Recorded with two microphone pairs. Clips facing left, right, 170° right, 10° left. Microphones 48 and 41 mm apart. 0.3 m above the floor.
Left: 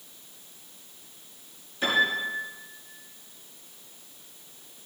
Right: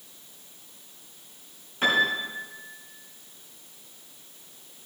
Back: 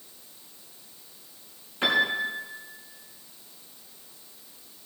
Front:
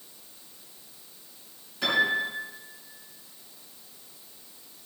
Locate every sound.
1.8 s a piano: 125° right, 3.5 m